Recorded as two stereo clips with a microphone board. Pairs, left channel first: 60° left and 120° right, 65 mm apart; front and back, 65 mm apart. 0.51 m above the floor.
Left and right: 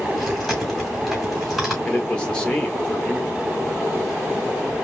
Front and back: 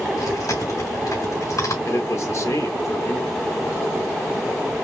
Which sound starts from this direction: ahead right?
Chewing, at 0.2 s.